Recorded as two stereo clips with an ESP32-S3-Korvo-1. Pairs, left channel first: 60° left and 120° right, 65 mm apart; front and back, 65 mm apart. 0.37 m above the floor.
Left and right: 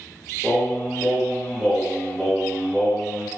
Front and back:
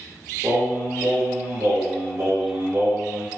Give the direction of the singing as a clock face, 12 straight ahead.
7 o'clock.